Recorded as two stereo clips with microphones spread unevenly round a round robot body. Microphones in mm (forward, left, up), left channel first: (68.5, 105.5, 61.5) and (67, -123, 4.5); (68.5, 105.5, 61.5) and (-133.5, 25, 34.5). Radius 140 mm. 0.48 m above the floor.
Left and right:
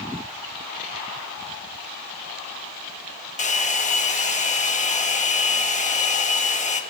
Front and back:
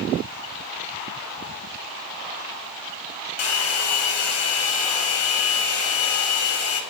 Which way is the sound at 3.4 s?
30° left.